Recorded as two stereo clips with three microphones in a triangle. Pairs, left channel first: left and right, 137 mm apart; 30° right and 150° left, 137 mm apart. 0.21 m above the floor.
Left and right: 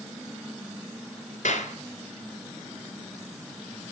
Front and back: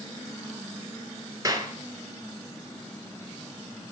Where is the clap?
85° left, 2 m.